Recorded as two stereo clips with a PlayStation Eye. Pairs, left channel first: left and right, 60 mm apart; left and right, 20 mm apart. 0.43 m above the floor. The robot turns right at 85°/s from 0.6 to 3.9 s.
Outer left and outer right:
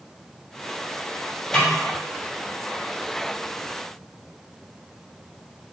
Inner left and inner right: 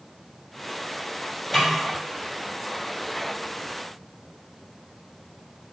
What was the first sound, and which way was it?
A snare drum, 15° left (ahead or behind).